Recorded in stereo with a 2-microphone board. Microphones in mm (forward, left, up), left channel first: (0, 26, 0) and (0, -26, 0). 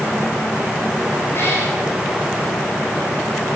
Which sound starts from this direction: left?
A cat meowing, at 1.3 s.